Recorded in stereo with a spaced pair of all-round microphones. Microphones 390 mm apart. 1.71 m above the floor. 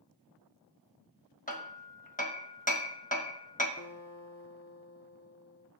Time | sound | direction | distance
1.5 | hammering | 20° left (ahead or behind) | 1.1 m
3.8 | a guitar | 40° left (ahead or behind) | 0.6 m